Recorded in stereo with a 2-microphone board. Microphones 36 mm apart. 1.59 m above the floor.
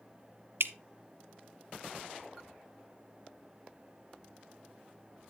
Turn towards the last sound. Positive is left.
turn(degrees=-80)